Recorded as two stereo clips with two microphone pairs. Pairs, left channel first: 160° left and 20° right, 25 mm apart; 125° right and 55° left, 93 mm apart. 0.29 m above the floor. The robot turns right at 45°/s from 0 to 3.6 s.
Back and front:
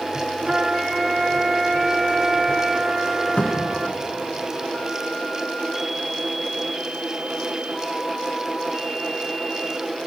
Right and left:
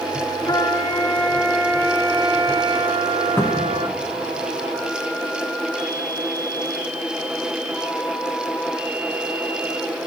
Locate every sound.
0.5 s a trumpet: 85° right, 0.7 m; by 4.0 s 60° left, 0.7 m
3.4 s a cupboard door: 175° left, 0.9 m; by 3.8 s 175° right, 0.9 m